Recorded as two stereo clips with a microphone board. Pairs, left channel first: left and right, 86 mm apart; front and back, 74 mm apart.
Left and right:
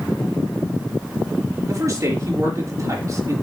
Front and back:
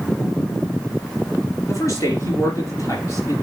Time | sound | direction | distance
1.7 | a man speaking | 40° right | 3.5 m